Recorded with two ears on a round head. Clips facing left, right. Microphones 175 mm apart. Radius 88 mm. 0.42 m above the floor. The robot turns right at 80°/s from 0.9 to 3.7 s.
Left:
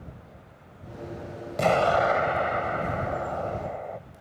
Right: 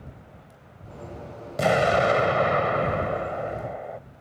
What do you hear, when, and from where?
1.6 s an explosion: 175° right; by 4.0 s 5° right